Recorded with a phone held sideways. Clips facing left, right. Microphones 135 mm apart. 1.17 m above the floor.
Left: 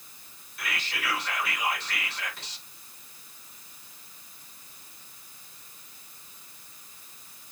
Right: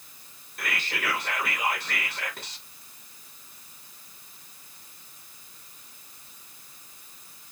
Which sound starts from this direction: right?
Whispering, at 0.6 s.